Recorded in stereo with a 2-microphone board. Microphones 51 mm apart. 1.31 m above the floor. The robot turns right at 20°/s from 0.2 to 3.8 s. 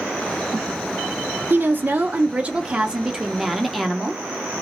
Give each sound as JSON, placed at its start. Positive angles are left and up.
{"t": 1.5, "sound": "a woman speaking", "azimuth_deg": -45, "distance_m": 0.6}